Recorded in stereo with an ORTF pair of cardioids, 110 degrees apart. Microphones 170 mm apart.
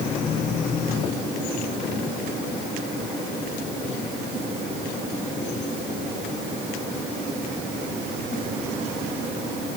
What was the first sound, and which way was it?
Only background noise.